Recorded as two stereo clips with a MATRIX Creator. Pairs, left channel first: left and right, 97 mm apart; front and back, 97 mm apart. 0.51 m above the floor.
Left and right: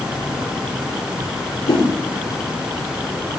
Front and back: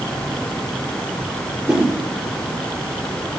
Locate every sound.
1.7 s a whoosh: 100° left, 6.5 m